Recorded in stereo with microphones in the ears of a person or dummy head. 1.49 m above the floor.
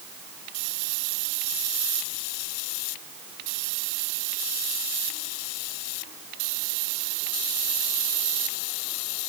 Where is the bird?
I don't hear a bird.